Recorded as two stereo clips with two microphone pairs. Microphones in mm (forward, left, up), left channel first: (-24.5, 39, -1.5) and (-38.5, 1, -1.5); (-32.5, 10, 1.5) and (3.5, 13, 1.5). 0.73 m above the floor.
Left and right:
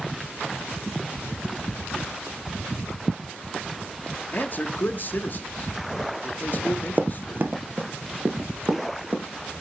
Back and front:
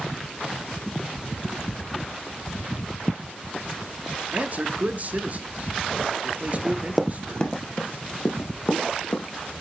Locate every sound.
4.3 s a man speaking: 35° left, 0.9 m
6.5 s running footsteps: 70° right, 0.8 m; by 9.2 s 145° right, 2 m